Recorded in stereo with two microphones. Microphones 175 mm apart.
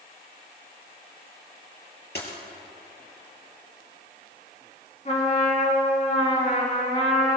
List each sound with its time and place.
2.1 s a dropped coin: 65° left (ahead or behind), 3 m
5.0 s a trumpet: 45° left (ahead or behind), 3.5 m